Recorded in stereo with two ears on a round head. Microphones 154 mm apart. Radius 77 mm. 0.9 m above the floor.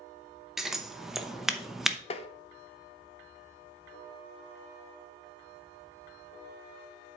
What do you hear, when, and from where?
0.6 s scissors: centre (ahead or behind), 0.7 m
2.1 s tapping: 35° left (ahead or behind), 0.6 m